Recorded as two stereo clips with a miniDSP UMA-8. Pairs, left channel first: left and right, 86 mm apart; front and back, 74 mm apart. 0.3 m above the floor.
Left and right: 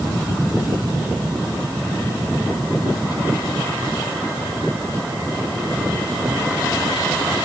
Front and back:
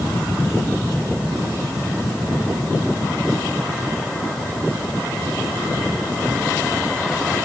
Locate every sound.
Only background noise.